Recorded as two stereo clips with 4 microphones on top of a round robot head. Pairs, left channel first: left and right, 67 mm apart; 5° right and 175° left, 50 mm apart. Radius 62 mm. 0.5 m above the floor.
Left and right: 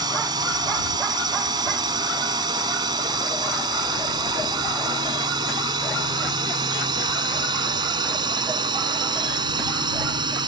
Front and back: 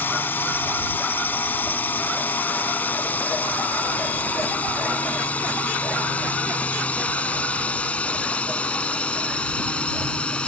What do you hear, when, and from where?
0.0 s a drone: 65° right; by 10.5 s 80° right